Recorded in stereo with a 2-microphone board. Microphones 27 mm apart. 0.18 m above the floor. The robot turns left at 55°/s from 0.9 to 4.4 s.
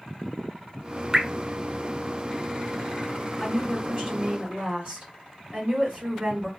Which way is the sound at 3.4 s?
5° right.